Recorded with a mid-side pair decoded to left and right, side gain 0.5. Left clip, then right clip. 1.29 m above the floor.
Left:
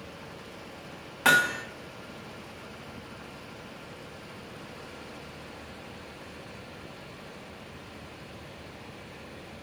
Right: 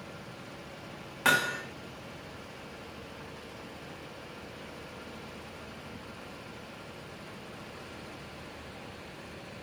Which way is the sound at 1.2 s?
10° left.